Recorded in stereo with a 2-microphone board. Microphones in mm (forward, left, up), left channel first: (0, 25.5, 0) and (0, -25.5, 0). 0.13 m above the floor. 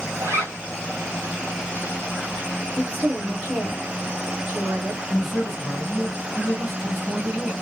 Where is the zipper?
55° right (ahead or behind), 1.1 m.